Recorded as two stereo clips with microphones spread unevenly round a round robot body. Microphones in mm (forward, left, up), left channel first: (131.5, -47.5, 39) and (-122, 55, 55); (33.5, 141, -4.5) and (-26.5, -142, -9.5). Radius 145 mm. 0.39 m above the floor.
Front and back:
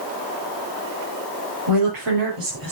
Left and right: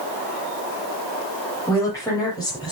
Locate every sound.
1.7 s a woman speaking: 160° left, 10 m; by 2.7 s 155° left, 9 m